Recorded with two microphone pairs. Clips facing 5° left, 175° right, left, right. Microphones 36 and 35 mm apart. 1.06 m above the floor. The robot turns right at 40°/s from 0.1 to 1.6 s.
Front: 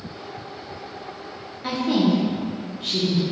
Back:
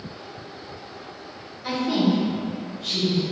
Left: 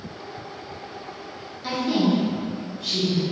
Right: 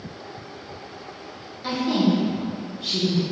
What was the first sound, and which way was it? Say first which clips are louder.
A woman speaking: front 1 dB, right 1 dB; 10° right.